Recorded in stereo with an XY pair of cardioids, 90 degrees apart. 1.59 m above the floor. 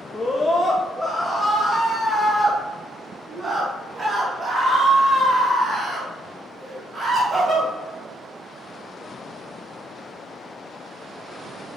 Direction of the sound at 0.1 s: 20° left.